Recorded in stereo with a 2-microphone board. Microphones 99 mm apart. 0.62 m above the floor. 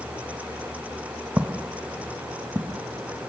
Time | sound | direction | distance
1.4 | footsteps | 15° right (ahead or behind) | 1.4 m